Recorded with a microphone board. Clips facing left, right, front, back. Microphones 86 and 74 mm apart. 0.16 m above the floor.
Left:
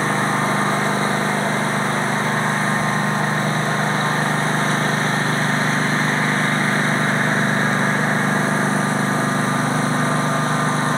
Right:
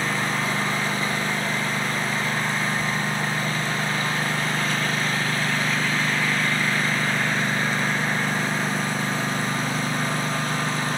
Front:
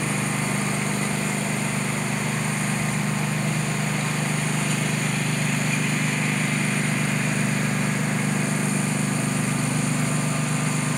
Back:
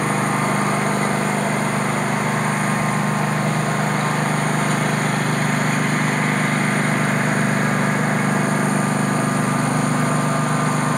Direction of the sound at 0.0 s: 145° left.